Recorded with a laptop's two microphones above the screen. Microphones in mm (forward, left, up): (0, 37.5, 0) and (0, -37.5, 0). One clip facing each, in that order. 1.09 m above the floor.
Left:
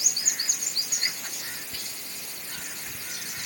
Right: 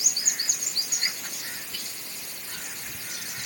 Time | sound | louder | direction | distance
1.7 | whispering | even | 25° left (ahead or behind) | ?